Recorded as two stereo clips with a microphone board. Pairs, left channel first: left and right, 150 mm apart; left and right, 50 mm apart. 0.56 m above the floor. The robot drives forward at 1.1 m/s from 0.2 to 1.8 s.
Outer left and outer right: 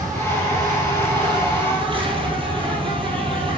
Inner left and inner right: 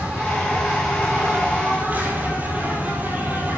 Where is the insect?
20° right (ahead or behind), 4.5 m; by 3.6 s 35° right (ahead or behind), 3 m.